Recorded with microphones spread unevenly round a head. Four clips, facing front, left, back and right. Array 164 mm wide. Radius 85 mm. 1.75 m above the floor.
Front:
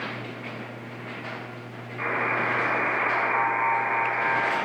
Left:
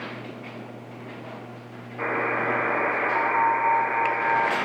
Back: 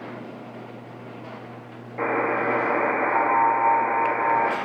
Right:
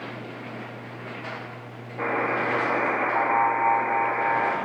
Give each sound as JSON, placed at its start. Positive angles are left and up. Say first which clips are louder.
{"t": 2.0, "sound": "a buzzer", "louder": "right 1 dB, back 4 dB", "azimuth_deg": -165, "distance_m": 1.9}